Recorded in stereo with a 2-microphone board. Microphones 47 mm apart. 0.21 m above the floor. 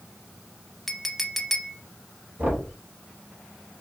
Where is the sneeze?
I don't hear a sneeze.